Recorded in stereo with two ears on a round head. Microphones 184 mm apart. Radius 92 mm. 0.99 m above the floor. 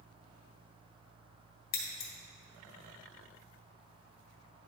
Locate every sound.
1.7 s scissors: 50° left (ahead or behind), 1.7 m